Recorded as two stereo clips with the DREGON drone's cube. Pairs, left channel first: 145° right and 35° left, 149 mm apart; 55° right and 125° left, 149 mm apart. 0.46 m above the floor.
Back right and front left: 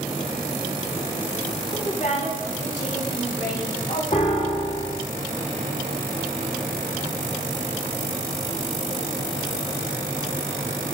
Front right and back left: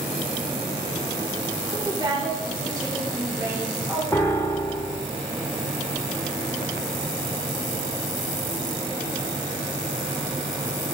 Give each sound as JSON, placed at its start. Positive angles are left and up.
{"t": 1.7, "sound": "a woman speaking", "azimuth_deg": 180, "distance_m": 4.5}
{"t": 4.1, "sound": "a piano", "azimuth_deg": -125, "distance_m": 1.6}